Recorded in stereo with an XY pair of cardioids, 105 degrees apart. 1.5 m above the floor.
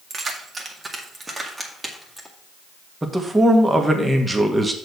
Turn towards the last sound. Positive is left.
turn(degrees=-15)